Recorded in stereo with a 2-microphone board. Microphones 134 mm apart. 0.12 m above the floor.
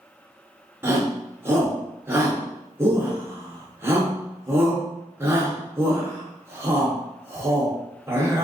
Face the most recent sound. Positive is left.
turn(degrees=-20)  # may be behind; listen again after turning